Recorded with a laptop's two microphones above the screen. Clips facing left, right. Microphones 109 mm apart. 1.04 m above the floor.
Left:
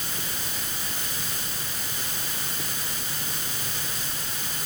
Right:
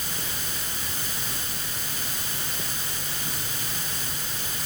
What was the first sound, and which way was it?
Only background noise.